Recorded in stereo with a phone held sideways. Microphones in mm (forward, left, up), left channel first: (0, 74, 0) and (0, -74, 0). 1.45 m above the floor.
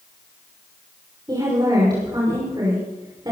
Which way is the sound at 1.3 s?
30° right (ahead or behind).